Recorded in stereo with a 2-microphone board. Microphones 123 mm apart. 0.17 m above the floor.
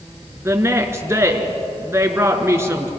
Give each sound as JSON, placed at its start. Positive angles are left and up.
{"t": 0.5, "sound": "a woman speaking", "side_deg": -20, "distance_m": 3.0}